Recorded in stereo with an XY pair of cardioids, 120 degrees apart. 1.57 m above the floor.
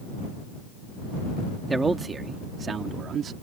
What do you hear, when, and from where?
1.7 s a man speaking: 20° right; by 3.3 s 50° right